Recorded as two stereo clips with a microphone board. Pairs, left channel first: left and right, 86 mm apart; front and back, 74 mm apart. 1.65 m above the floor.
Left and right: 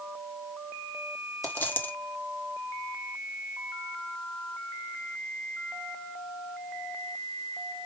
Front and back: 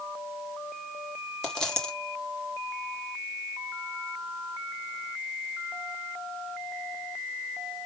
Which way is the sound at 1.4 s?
70° left.